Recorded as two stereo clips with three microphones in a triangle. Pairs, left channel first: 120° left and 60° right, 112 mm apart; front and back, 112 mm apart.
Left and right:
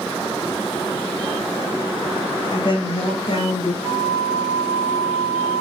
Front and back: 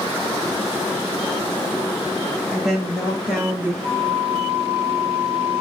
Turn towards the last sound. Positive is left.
turn(degrees=110)